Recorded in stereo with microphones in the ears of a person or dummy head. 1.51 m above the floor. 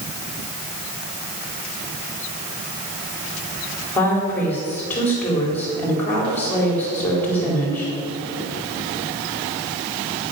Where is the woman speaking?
10° left (ahead or behind), 4.5 m.